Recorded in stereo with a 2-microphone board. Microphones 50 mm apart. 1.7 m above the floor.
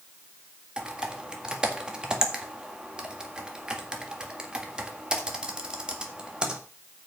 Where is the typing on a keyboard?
20° right (ahead or behind), 1.7 m.